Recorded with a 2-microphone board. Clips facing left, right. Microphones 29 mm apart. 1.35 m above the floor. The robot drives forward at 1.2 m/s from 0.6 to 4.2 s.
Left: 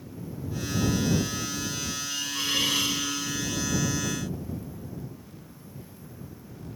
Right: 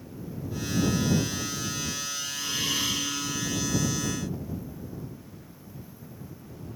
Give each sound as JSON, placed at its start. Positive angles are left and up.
{"t": 2.1, "sound": "a hiss", "side_deg": 85, "distance_m": 5.5}